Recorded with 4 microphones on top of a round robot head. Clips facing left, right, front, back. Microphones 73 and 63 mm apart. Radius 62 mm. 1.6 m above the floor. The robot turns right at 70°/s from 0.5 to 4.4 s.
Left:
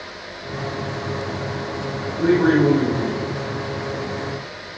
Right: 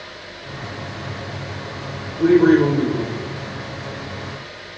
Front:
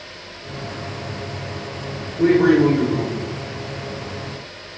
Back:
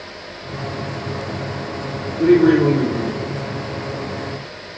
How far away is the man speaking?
About 1.8 m.